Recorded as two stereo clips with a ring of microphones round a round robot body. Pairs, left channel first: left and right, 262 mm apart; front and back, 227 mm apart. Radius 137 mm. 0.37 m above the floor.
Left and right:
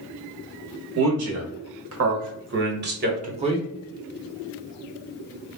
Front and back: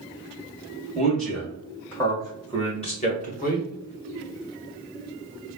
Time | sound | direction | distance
0.9 | a man speaking | 90° right | 1.7 m